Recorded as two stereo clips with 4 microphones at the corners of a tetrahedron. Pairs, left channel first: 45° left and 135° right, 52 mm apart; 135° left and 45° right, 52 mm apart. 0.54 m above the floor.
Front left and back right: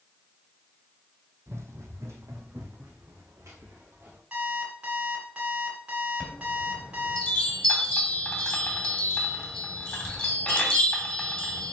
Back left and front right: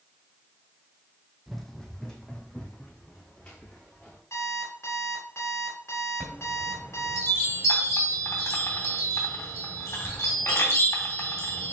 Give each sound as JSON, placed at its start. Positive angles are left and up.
{"t": 1.5, "sound": "running footsteps", "azimuth_deg": -140, "distance_m": 0.9}
{"t": 4.3, "sound": "an alarm clock", "azimuth_deg": 160, "distance_m": 3.0}
{"t": 6.2, "sound": "a chime", "azimuth_deg": 115, "distance_m": 2.5}